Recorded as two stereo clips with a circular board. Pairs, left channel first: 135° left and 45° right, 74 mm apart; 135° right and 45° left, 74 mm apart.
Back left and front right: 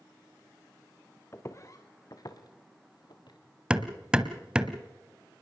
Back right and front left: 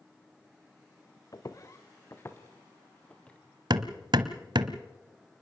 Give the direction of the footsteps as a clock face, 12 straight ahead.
6 o'clock.